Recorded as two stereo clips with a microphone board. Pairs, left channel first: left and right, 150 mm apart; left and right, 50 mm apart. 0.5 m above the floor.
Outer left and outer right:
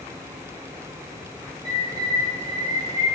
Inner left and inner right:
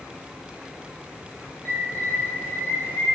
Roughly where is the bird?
Left.